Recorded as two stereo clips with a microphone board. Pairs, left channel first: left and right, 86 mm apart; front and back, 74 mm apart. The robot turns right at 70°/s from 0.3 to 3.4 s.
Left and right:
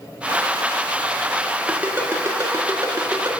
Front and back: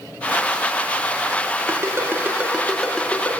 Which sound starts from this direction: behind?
A ringtone, at 1.7 s.